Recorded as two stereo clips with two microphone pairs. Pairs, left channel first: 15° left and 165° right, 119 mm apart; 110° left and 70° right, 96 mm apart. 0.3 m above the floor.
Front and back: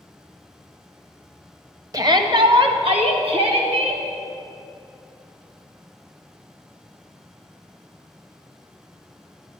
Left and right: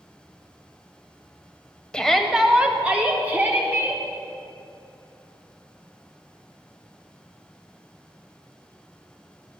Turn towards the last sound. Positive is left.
turn(degrees=-135)